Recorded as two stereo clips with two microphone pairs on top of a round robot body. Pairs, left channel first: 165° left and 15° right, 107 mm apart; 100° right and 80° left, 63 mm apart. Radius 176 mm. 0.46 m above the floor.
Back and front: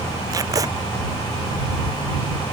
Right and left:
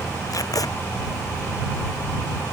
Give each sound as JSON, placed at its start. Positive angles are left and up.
{"t": 0.3, "sound": "tape being pulled", "azimuth_deg": -70}